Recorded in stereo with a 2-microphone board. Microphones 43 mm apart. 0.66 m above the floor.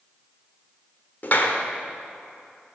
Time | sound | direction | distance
1.2 | a clap | 45° left (ahead or behind) | 1.3 m